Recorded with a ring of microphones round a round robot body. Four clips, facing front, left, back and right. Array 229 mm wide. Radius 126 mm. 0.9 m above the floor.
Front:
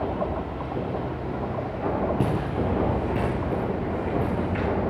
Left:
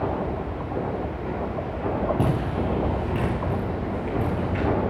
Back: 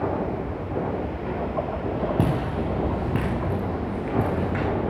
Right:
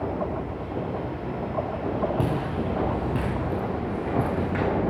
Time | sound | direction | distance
2.2 | footsteps | straight behind | 6.5 m